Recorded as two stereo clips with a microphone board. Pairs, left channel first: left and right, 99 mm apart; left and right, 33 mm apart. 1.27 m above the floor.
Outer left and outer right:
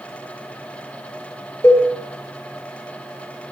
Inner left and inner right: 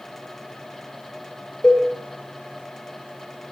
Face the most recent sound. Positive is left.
turn(degrees=20)  # may be behind; listen again after turning